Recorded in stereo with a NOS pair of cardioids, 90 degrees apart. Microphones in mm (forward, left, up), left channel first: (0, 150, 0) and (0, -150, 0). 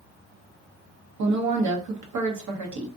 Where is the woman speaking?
70° right, 1.0 m.